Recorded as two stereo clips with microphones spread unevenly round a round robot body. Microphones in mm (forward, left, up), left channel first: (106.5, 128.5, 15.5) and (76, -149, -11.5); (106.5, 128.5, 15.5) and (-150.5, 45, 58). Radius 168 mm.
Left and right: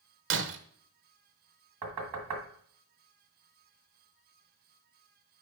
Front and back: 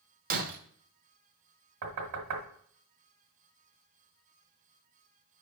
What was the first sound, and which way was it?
Breaking glass, 105° right.